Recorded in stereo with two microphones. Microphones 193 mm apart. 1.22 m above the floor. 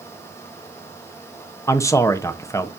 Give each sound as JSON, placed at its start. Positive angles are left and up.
{"t": 1.7, "sound": "a man speaking", "side_deg": 15, "distance_m": 1.0}